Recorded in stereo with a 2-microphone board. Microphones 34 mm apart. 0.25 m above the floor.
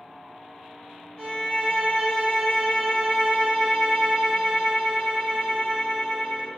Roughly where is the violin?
Left.